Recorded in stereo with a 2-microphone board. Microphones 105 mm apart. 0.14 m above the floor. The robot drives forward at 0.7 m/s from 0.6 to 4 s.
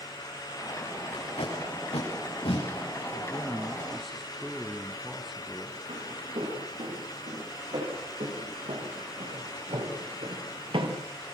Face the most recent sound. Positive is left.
turn(degrees=-55)  # may be behind; listen again after turning